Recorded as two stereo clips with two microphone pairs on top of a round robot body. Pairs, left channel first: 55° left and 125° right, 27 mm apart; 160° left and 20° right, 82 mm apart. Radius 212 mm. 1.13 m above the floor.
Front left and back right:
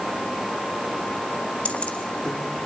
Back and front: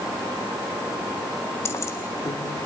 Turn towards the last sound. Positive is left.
turn(degrees=115)